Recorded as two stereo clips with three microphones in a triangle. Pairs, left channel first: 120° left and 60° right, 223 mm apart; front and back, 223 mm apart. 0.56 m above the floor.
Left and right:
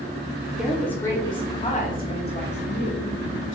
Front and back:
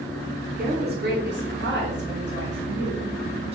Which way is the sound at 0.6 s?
145° right.